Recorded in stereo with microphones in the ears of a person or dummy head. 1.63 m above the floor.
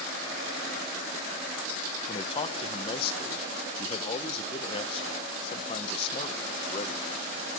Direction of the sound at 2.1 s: 30° left (ahead or behind).